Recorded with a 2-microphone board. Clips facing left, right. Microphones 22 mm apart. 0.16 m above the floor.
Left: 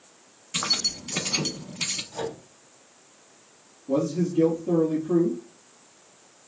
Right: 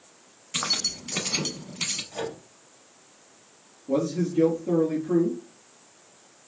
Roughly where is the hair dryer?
No hair dryer in this recording.